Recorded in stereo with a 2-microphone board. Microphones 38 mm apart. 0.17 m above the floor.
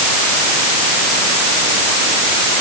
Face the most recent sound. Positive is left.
No sound to turn to.